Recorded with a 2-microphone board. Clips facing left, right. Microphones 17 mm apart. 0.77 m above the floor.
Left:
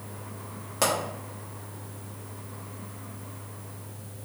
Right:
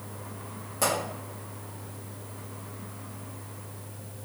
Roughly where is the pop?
Left.